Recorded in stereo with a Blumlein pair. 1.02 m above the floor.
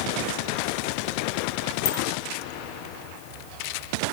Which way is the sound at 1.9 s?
40° left.